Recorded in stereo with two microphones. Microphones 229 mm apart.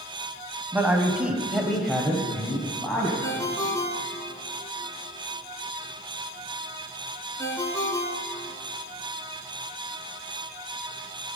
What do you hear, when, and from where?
0.7 s a man speaking: 10° right (ahead or behind), 1.3 m; by 3.1 s 10° left (ahead or behind), 1.6 m
3.2 s a ringtone: 15° left (ahead or behind), 1.1 m